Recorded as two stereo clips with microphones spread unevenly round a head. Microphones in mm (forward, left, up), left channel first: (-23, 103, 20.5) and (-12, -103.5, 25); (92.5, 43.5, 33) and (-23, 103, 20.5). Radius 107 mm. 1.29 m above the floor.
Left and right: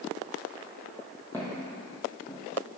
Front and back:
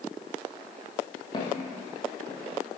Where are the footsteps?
10° left, 1.9 m; by 2.4 s 35° left, 1.7 m.